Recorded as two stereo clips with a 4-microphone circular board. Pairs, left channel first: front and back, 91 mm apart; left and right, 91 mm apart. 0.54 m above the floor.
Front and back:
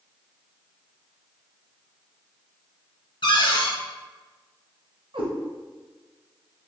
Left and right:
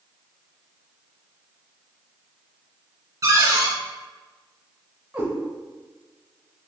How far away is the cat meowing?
About 1.4 m.